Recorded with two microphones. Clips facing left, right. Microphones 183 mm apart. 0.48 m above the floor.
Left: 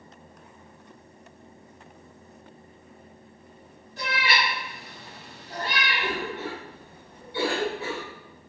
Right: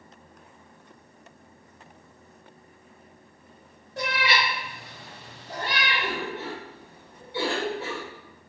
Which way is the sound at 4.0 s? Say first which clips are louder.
Right 1 dB; 80° right.